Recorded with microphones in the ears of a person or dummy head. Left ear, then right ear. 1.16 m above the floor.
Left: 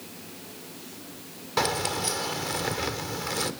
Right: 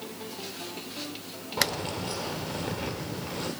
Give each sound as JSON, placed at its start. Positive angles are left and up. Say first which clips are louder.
{"t": 1.6, "sound": "keys jangling", "louder": "left 3 dB", "side_deg": 75, "distance_m": 2.0}